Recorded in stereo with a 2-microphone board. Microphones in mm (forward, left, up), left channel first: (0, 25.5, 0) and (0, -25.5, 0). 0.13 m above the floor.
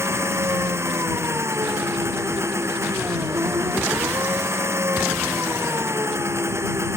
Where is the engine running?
60° right (ahead or behind).